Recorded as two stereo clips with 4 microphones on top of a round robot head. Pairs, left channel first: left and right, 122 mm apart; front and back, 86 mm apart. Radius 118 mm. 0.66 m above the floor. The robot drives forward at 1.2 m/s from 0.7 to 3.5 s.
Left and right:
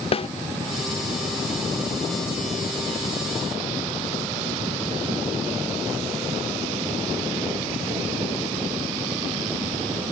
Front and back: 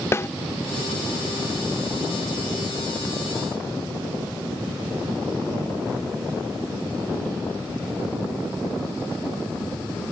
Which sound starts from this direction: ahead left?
A snare drum, at 0.1 s.